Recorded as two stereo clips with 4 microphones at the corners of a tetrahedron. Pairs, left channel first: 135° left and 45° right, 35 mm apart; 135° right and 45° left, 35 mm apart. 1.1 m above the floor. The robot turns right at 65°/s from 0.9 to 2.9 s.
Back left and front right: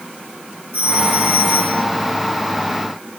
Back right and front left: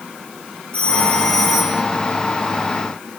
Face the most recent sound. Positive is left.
turn(degrees=45)